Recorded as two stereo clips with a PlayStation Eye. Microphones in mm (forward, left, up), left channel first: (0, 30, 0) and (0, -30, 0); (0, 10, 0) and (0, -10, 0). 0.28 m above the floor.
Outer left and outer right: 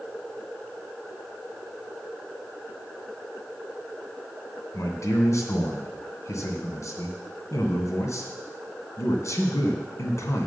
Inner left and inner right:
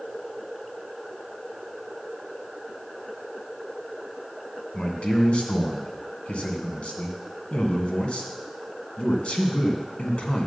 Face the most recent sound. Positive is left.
turn(degrees=60)  # may be behind; listen again after turning